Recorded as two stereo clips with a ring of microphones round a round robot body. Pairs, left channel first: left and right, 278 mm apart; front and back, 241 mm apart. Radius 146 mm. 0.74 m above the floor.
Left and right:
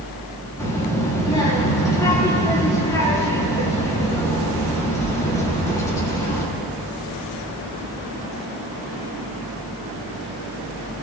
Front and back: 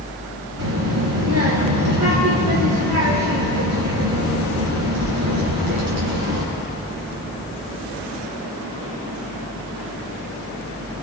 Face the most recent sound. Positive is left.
turn(degrees=170)